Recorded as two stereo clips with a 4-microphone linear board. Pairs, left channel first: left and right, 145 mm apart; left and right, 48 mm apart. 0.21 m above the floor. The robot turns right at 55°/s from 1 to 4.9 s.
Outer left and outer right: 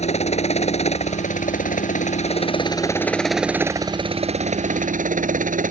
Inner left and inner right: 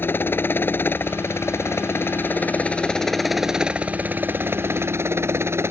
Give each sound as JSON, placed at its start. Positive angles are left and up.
{"t": 0.0, "sound": "a helicopter", "side_deg": 50}